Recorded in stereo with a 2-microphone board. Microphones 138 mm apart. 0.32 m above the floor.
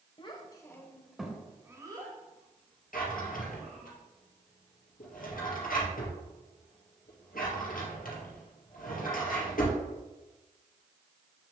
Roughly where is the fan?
I don't hear a fan.